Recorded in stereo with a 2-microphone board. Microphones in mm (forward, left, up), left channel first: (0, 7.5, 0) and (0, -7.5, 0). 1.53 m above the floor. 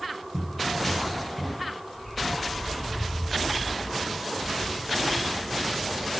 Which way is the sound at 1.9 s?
70° left (ahead or behind).